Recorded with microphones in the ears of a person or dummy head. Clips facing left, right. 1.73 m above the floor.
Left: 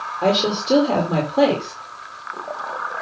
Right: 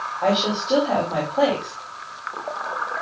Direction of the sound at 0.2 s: 55° left (ahead or behind).